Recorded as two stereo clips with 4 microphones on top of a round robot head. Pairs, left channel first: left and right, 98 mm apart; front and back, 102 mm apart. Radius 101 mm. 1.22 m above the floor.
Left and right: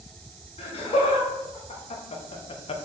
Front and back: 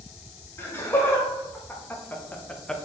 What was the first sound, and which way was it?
Laughter, 65° left.